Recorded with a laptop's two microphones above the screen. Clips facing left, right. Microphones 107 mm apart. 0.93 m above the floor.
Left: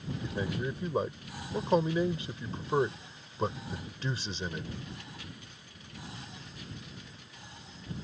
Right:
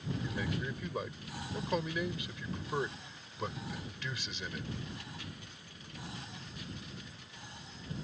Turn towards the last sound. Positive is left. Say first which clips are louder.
# left 6 dB
turn(degrees=30)  # may be behind; listen again after turning